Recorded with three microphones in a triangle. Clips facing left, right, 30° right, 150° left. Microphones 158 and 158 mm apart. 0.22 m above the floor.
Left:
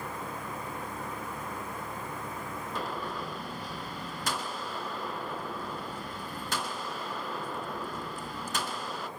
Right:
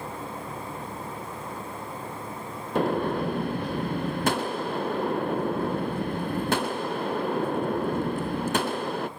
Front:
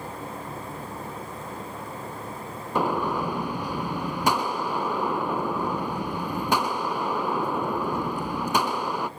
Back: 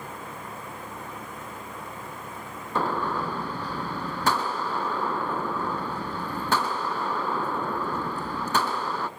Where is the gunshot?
105° right, 0.7 m.